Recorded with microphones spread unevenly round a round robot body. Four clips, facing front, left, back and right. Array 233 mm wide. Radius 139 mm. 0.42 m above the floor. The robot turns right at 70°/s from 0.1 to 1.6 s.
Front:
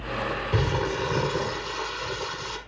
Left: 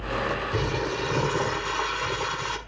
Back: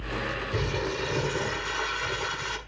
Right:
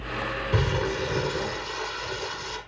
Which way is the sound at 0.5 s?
Straight ahead.